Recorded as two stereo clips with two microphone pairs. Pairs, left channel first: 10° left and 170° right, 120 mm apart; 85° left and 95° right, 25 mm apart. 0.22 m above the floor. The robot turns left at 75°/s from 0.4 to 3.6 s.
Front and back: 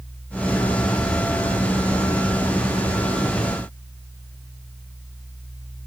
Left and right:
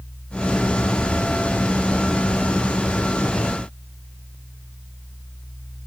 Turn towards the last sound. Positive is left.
No sound to turn to.